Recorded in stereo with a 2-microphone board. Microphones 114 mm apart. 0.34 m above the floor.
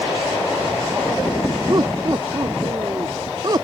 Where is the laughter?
35° right (ahead or behind).